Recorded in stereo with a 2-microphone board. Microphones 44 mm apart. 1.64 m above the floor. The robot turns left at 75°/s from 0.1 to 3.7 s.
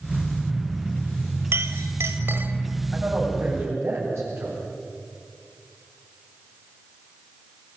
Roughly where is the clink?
Right.